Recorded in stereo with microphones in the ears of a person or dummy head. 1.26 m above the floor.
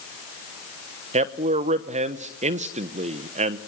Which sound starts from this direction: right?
A man speaking, at 1.1 s.